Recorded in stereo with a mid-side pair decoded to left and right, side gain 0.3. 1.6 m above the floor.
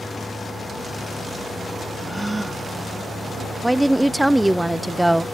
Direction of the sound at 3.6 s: 15° right.